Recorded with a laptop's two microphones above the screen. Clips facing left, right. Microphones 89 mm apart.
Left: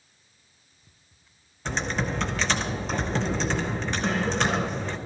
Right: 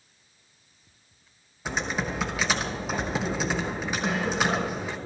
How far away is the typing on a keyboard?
About 1.2 m.